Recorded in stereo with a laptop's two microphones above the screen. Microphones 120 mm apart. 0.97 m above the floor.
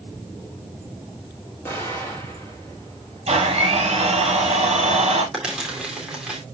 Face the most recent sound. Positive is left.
turn(degrees=-10)  # may be behind; listen again after turning